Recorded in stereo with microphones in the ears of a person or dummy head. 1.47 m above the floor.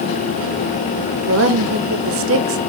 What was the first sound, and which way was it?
A woman speaking, 65° right (ahead or behind).